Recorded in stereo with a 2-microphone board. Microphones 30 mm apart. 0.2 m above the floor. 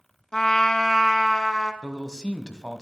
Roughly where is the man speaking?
Left.